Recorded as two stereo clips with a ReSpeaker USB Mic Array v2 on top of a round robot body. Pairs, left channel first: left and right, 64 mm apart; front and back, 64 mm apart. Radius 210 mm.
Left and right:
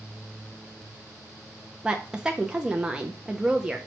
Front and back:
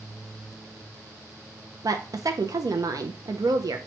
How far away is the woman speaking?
About 0.6 m.